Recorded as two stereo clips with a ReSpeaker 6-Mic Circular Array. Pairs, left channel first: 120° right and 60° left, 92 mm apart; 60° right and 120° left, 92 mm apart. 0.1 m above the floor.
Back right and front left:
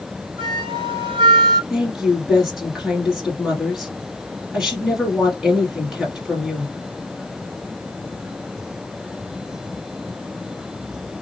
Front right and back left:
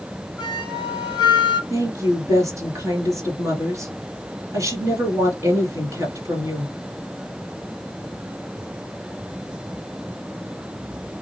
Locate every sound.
0.4 s a flute: 35° left, 3 m
1.7 s a woman speaking: 140° left, 2 m